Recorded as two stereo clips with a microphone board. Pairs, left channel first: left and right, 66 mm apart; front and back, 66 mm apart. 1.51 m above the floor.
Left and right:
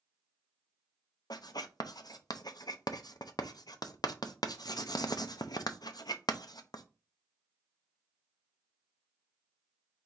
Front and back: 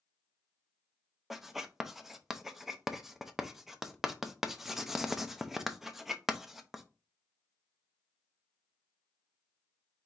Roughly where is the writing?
Left.